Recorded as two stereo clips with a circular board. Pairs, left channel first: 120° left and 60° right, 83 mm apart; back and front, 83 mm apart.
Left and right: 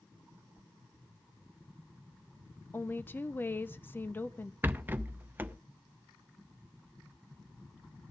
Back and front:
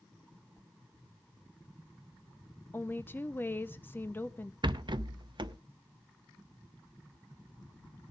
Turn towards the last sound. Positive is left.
turn(degrees=5)